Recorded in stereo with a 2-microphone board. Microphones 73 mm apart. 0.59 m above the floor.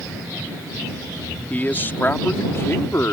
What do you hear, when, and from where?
1.5 s a man speaking: 25° left (ahead or behind); by 3.1 s 40° left (ahead or behind)